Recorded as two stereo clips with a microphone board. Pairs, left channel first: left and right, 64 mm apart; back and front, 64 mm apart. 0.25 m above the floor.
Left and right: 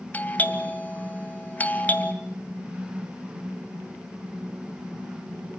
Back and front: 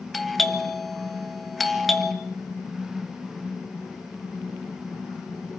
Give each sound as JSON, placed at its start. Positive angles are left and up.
{"t": 0.1, "sound": "a doorbell", "azimuth_deg": 95, "distance_m": 1.8}